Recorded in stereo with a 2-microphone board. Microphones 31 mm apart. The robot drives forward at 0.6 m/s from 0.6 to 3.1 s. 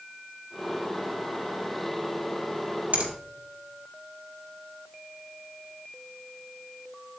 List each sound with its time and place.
2.9 s a finger snap: 55° right (ahead or behind), 1.8 m; by 3.1 s 50° right (ahead or behind), 1.8 m